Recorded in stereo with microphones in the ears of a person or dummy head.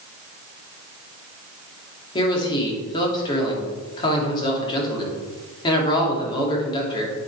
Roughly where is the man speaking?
Centre.